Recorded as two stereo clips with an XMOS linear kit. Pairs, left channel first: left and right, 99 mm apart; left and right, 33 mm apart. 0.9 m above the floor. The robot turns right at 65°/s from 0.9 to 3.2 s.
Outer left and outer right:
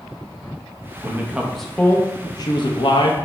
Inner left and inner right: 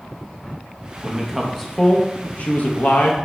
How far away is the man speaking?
About 0.6 m.